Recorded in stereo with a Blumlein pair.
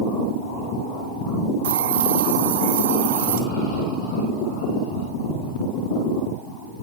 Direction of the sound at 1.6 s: 55° right.